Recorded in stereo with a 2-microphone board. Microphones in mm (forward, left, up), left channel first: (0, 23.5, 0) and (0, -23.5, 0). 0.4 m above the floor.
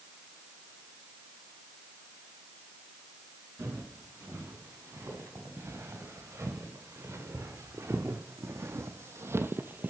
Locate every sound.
3.6 s footsteps: 60° right (ahead or behind), 5 m; by 9.9 s 40° right (ahead or behind), 0.5 m